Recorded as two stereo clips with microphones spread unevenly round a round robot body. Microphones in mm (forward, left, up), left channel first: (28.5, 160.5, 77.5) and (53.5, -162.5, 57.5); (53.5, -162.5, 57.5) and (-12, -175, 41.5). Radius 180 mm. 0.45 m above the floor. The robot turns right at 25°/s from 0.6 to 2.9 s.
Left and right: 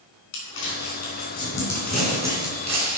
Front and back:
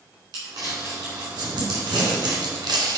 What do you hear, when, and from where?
0.3 s crumpling: 150° left, 3.5 m; by 3.0 s 150° right, 3.5 m